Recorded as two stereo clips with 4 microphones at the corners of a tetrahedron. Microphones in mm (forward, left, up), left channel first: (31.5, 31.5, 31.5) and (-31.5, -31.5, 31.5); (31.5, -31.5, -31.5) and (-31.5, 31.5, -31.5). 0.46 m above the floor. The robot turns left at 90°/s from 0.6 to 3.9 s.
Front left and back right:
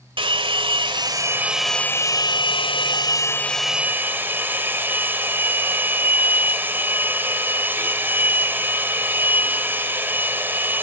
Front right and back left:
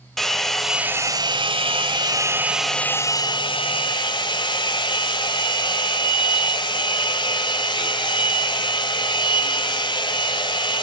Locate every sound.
0.2 s a hair dryer: 130° right, 1.4 m; by 10.8 s 70° right, 1.4 m